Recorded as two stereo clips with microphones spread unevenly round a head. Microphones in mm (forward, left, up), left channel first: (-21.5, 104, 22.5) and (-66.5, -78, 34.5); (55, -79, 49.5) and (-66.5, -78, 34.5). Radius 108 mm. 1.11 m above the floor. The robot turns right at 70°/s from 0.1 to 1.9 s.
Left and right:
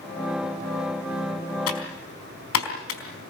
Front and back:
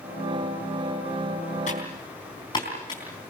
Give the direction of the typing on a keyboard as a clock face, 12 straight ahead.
10 o'clock.